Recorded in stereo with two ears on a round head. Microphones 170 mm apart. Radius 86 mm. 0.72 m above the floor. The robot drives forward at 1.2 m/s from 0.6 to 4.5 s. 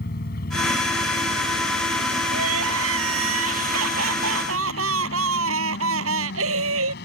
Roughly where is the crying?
Right.